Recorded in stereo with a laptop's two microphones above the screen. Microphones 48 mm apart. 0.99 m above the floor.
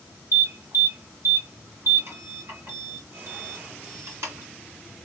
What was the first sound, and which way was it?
An alarm, 60° right (ahead or behind).